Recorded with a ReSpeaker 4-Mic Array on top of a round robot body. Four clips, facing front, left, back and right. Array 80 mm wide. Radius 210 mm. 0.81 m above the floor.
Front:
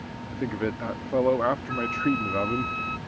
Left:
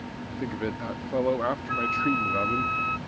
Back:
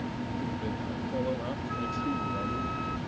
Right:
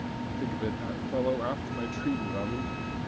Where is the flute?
75° left.